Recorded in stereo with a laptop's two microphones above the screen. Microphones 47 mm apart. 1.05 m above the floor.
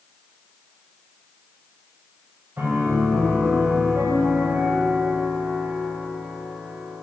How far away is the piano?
About 5 m.